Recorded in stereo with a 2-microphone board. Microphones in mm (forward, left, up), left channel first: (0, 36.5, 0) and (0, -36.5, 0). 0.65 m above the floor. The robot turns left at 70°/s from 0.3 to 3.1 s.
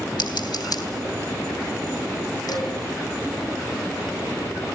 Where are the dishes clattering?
60° left (ahead or behind), 3 m; by 2.7 s 75° left (ahead or behind), 3 m.